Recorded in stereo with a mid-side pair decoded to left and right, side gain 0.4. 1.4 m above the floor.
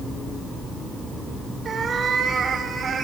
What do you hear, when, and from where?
1.6 s a cat meowing: 55° right, 4 m; by 3.0 s 65° right, 5.5 m